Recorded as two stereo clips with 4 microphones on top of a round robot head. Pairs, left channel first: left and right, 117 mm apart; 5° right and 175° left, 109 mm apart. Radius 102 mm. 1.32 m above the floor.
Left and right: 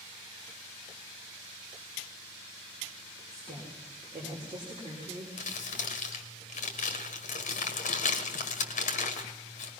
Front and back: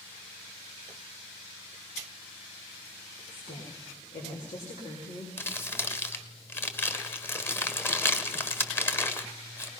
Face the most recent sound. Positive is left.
turn(degrees=65)